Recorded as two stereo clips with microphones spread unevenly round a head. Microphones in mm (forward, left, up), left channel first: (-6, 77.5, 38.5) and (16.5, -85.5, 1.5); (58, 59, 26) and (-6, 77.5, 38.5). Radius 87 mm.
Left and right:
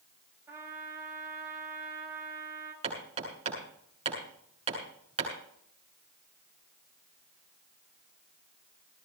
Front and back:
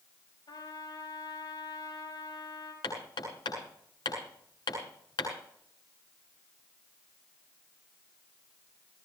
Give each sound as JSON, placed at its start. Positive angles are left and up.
{"t": 0.5, "sound": "a trumpet", "azimuth_deg": -5, "distance_m": 6.0}
{"t": 2.8, "sound": "hammering", "azimuth_deg": -25, "distance_m": 8.0}